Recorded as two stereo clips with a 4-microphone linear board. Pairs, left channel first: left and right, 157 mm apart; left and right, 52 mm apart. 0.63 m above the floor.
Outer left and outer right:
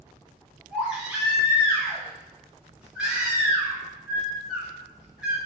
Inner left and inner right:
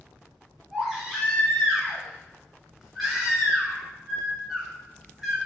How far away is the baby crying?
About 1.4 m.